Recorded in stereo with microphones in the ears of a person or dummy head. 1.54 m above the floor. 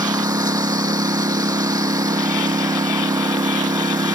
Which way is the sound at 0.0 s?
20° right (ahead or behind).